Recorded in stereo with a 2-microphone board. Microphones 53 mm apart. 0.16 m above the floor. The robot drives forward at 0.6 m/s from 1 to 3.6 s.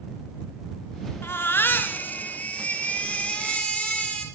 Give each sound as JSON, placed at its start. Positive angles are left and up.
{"t": 1.2, "sound": "a baby crying", "side_deg": 50, "distance_m": 0.9}